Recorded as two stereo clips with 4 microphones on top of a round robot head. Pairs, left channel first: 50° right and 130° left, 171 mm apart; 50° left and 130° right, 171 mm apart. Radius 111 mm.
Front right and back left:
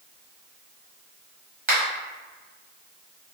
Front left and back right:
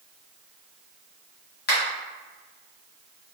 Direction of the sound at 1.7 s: 85° left.